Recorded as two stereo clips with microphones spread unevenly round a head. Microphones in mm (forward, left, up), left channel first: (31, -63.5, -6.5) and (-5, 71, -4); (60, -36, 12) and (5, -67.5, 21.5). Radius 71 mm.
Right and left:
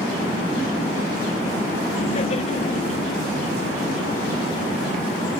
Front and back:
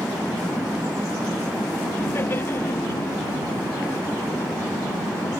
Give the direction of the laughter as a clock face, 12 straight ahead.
1 o'clock.